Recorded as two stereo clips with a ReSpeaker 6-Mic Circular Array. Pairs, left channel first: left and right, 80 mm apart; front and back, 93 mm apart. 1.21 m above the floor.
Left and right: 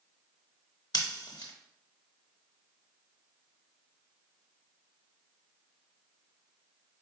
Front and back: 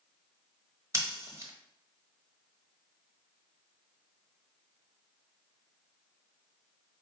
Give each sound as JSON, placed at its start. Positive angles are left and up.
{"t": 0.9, "sound": "scissors", "azimuth_deg": 125, "distance_m": 0.9}